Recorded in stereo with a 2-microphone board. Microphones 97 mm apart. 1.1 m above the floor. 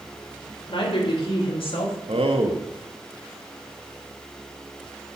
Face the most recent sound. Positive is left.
turn(degrees=-70)  # may be behind; listen again after turning